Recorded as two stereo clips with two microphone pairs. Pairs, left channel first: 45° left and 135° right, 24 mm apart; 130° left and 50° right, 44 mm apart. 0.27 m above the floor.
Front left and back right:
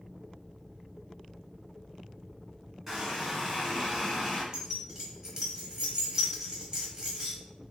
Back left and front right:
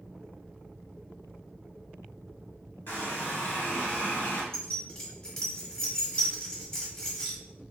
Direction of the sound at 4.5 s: 165° right.